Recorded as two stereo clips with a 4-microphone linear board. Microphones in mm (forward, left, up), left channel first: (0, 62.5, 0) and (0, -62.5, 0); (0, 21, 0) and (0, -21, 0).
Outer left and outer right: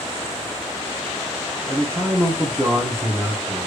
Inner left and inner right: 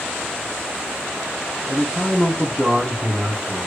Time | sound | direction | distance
1.7 | a man speaking | 10° right (ahead or behind) | 1.0 m